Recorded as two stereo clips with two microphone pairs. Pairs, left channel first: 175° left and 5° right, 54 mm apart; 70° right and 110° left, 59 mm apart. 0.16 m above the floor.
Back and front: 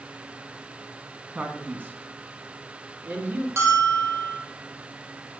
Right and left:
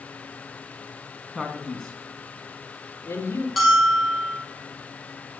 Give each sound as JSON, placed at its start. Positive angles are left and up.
{"t": 1.4, "sound": "a man speaking", "azimuth_deg": 30, "distance_m": 1.9}
{"t": 3.6, "sound": "a bell", "azimuth_deg": 20, "distance_m": 3.0}